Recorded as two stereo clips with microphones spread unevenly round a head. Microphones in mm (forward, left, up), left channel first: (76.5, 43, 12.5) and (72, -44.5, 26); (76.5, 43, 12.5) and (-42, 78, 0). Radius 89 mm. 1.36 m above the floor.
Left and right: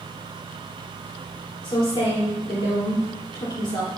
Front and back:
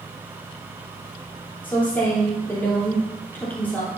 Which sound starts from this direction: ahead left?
A woman speaking, at 1.6 s.